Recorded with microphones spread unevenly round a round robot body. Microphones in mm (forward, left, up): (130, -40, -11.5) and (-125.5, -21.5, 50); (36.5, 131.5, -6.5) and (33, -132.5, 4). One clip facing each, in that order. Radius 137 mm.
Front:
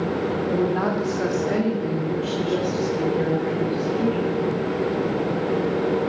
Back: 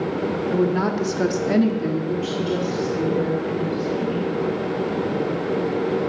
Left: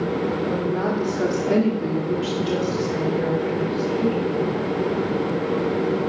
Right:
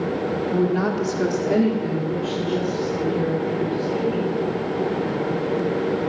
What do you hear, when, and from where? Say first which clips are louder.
0.5 s a woman speaking: back 3 dB, right 2 dB; 125° right, 1.5 m; by 4.3 s 100° left, 3.5 m